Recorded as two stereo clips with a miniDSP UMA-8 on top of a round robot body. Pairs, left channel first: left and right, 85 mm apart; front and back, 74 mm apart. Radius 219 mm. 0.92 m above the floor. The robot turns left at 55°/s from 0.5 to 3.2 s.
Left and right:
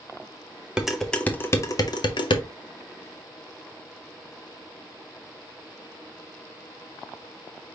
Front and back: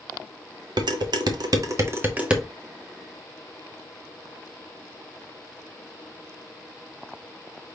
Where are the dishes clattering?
170° right, 0.7 m; by 2.4 s 95° left, 0.7 m.